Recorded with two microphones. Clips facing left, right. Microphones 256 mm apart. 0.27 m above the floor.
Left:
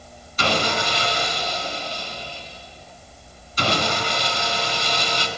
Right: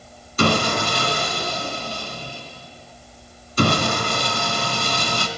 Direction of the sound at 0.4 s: 55° right (ahead or behind).